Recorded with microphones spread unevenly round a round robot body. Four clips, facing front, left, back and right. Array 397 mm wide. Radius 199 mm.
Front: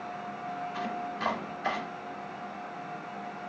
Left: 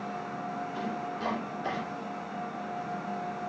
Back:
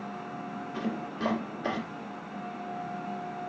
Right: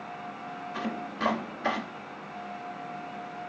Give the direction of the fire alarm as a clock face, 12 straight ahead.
I don't hear a fire alarm.